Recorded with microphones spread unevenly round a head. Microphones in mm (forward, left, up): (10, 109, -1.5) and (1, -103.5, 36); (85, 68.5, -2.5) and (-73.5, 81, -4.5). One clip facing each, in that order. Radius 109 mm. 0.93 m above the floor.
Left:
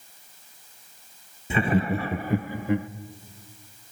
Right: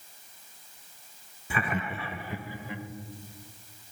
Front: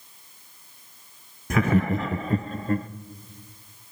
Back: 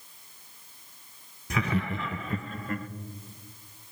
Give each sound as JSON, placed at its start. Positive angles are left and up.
{"t": 1.5, "sound": "laughter", "azimuth_deg": 30, "distance_m": 0.7}